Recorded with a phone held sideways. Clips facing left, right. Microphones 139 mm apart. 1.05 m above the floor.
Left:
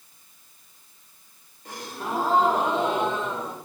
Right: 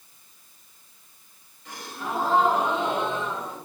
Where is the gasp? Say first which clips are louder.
Left 1 dB; 45° left (ahead or behind), 1.9 m.